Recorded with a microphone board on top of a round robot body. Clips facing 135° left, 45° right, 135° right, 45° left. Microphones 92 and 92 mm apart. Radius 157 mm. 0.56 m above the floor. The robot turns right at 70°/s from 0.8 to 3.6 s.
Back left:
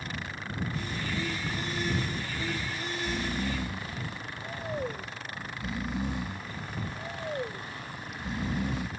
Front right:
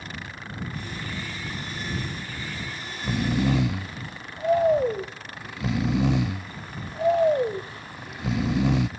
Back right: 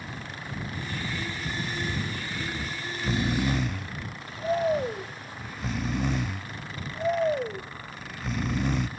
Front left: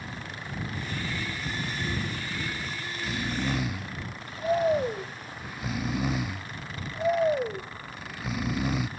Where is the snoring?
115° right; by 8.9 s 40° right.